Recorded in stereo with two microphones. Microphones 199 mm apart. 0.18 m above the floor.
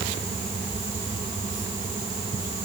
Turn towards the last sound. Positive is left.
No sound to turn to.